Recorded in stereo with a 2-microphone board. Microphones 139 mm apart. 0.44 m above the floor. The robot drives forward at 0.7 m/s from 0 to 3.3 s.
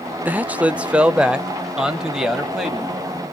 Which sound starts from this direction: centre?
A man speaking, at 0.2 s.